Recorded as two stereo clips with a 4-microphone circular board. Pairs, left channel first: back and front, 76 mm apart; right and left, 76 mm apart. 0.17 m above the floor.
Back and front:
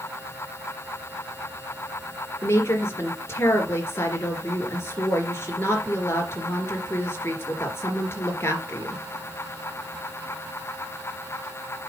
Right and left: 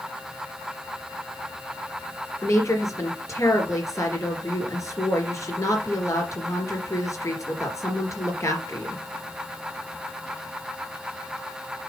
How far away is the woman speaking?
About 3 m.